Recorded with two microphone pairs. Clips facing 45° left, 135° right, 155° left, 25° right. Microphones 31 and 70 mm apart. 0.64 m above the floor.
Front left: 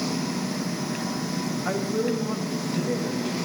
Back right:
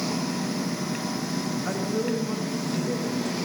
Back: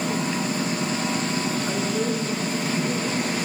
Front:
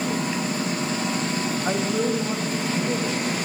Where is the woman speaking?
30° right, 4 m.